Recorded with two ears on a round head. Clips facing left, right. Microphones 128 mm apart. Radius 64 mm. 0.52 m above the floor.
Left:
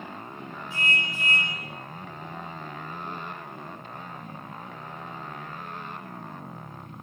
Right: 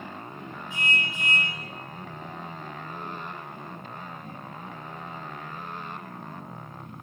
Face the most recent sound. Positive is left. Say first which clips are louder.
# even
turn(degrees=-15)  # may be behind; listen again after turning